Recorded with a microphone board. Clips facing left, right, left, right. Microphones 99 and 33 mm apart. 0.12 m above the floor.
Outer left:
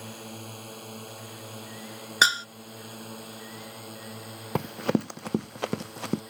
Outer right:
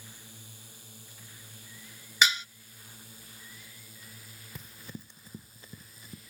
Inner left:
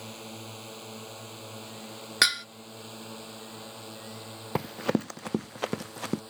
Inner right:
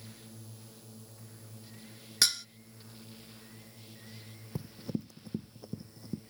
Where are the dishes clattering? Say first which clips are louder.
Outer left 4 dB, inner left 6 dB; 40° left (ahead or behind).